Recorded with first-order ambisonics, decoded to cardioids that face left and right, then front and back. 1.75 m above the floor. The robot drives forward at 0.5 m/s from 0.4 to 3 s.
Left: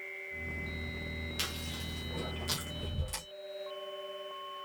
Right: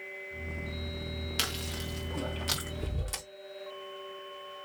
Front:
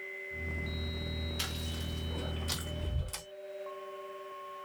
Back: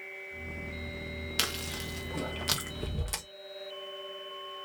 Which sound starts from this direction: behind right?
Chewing, at 1.4 s.